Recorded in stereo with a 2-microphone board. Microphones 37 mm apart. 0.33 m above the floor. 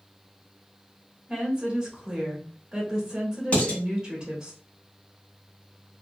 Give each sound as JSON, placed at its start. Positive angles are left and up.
{"t": 1.3, "sound": "a woman speaking", "side_deg": -20, "distance_m": 1.3}
{"t": 3.5, "sound": "dishes clattering", "side_deg": 35, "distance_m": 1.5}